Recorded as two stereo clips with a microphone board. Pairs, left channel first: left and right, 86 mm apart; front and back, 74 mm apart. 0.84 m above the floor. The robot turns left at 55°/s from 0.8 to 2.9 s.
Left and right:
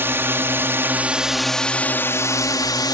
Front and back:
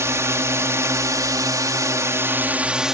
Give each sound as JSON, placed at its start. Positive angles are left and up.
{"t": 0.0, "sound": "a drone", "azimuth_deg": -145}